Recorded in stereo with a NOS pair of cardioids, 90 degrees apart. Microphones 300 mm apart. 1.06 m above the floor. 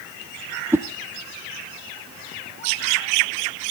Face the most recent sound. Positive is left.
turn(degrees=-10)